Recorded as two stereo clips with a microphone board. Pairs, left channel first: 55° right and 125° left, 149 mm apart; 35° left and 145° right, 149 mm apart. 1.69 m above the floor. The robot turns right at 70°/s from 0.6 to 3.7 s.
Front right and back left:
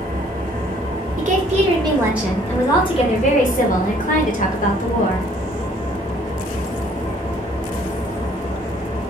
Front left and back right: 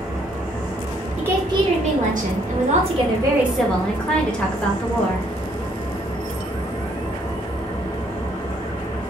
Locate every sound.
0.0 s an engine running: 130° left, 2.5 m; by 9.1 s 15° right, 2.5 m
1.2 s a woman speaking: 135° left, 1.3 m; by 5.3 s 50° right, 1.3 m